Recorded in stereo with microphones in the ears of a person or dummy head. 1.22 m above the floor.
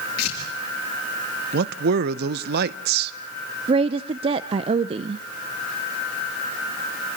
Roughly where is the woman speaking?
Right.